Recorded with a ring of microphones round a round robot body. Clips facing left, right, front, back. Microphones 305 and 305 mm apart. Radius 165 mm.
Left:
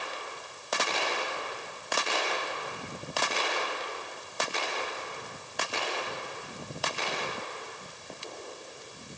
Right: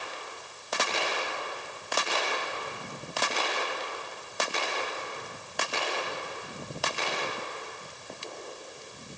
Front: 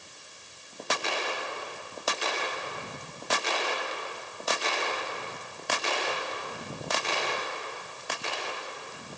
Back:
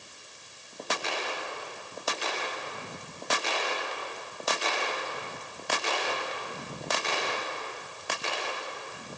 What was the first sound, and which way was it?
Only background noise.